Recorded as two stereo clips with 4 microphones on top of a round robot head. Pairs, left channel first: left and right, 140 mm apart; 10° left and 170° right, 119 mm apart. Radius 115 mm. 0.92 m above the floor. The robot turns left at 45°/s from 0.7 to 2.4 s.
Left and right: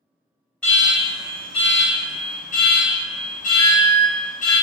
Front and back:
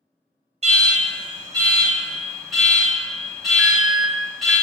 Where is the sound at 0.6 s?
170° left, 1.4 m; by 4.6 s 95° left, 1.4 m.